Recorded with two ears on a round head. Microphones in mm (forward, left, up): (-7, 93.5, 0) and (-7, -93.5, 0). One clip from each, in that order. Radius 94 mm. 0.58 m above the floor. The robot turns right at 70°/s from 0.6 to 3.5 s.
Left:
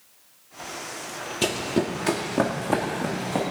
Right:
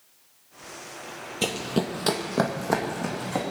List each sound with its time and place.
1.4 s running footsteps: 10° right (ahead or behind), 1.0 m; by 3.4 s centre (ahead or behind), 2.5 m